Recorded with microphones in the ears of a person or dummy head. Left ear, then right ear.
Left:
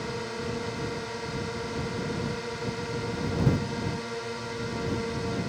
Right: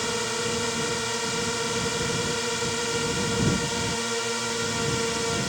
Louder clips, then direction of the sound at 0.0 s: Right 6 dB; 75° right (ahead or behind).